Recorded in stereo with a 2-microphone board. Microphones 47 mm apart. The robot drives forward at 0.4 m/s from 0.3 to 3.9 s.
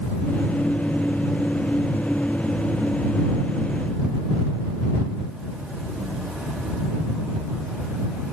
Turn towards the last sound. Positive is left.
No sound to turn to.